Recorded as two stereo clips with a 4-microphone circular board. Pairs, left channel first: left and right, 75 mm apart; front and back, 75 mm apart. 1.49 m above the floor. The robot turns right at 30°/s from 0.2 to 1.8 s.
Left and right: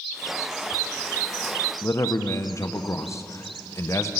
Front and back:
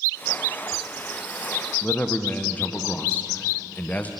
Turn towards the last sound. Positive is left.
turn(degrees=65)